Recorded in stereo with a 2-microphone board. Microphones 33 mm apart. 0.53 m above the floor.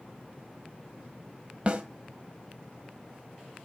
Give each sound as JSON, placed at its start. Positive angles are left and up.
{"t": 1.7, "sound": "a snare drum", "side_deg": -40, "distance_m": 1.6}